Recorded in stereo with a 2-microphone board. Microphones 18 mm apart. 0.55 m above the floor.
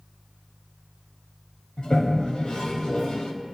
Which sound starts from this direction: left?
A toilet flushing, at 1.8 s.